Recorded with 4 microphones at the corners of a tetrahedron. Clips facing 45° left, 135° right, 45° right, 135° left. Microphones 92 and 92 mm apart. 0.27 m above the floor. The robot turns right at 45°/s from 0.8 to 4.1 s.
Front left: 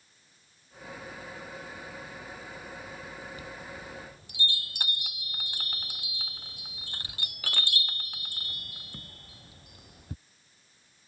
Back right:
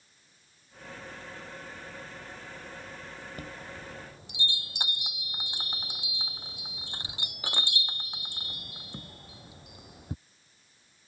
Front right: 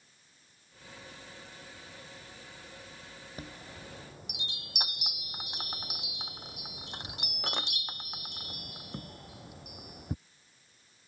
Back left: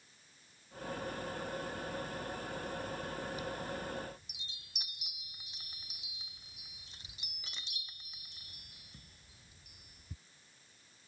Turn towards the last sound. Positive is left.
turn(degrees=-65)